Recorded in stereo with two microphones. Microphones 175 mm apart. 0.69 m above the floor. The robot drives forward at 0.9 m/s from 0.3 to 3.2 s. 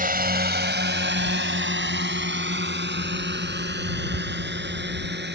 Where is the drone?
50° right (ahead or behind); by 5.3 s 70° right (ahead or behind).